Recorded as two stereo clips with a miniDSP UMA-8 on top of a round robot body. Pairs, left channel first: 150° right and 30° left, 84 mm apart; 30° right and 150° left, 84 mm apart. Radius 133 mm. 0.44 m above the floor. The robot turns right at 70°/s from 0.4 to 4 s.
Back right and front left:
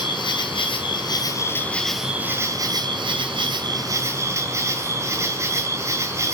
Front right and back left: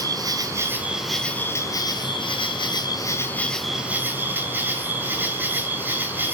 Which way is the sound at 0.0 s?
170° right.